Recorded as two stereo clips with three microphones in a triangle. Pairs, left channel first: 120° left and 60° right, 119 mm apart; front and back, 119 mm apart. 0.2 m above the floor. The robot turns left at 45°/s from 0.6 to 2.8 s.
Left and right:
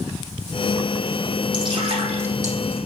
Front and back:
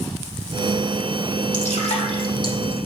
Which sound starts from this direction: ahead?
Dripping, at 1.5 s.